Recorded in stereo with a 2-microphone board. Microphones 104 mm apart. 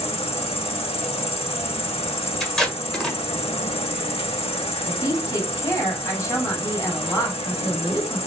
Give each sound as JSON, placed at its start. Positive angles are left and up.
{"t": 0.0, "sound": "an insect", "side_deg": 65, "distance_m": 0.9}
{"t": 2.4, "sound": "tape being pulled", "side_deg": 5, "distance_m": 1.7}
{"t": 4.9, "sound": "a woman speaking", "side_deg": 30, "distance_m": 2.5}